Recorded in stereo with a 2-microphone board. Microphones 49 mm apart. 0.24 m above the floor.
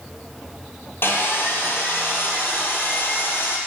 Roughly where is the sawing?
Left.